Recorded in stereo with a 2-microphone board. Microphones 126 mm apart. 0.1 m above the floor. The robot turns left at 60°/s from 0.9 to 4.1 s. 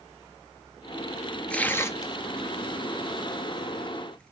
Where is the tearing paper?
10° left (ahead or behind), 0.8 m.